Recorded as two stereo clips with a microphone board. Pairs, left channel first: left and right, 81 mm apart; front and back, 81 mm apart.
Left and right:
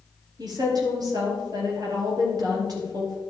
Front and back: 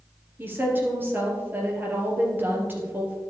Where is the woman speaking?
115° right, 3 m.